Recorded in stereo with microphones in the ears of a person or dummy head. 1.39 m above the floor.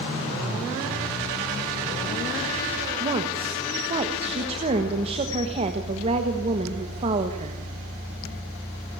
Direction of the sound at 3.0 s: 35° right (ahead or behind).